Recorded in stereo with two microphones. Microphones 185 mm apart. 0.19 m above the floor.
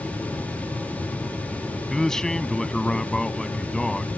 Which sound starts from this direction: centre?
A man speaking, at 1.9 s.